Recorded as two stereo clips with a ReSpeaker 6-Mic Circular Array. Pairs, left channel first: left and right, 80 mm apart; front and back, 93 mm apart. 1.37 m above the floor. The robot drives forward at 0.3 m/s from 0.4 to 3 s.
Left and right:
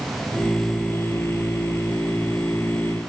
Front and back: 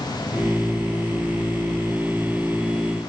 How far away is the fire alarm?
I don't hear a fire alarm.